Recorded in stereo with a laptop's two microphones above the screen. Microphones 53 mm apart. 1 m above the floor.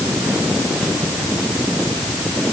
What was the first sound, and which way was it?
Only background noise.